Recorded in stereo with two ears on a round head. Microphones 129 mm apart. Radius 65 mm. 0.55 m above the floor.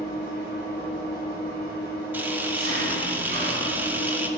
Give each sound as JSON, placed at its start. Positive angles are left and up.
{"t": 0.0, "sound": "an engine running", "side_deg": -75, "distance_m": 2.5}
{"t": 2.1, "sound": "a camera shutter", "side_deg": -15, "distance_m": 0.7}